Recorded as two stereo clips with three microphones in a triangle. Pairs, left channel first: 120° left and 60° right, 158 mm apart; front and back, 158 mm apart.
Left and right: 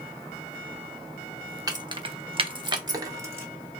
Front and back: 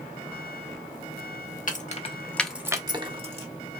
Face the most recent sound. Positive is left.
turn(degrees=-130)